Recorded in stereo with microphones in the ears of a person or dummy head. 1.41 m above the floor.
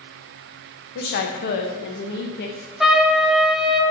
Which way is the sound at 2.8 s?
10° right (ahead or behind).